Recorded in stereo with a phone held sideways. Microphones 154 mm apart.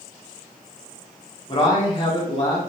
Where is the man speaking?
35° left (ahead or behind), 1.7 m.